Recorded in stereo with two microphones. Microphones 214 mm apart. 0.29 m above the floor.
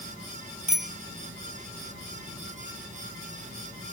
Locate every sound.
0.7 s a bicycle bell: 35° right (ahead or behind)